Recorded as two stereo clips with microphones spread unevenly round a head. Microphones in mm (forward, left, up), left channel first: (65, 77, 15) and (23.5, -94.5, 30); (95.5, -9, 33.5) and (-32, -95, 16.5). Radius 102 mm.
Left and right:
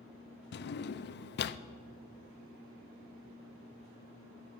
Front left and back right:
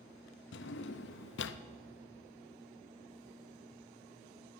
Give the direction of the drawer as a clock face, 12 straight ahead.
10 o'clock.